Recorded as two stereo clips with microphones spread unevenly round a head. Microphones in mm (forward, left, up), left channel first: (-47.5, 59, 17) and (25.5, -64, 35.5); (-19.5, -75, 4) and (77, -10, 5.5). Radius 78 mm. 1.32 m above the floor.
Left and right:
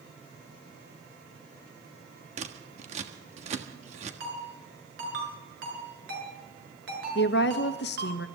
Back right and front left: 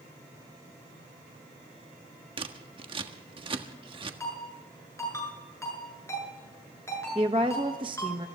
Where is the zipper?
No zipper in this recording.